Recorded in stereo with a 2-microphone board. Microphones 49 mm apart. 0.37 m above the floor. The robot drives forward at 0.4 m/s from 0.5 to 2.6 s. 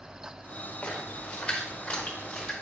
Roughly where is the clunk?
No clunk in this recording.